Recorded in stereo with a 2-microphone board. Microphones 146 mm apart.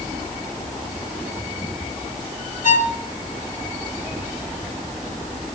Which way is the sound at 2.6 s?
60° left (ahead or behind).